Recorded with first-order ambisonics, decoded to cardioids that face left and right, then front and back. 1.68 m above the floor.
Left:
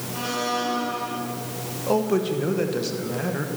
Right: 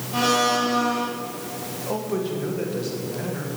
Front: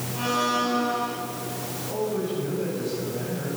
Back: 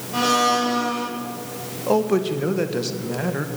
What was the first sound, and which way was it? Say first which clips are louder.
A blender: right 6 dB, back 6 dB; 145° right.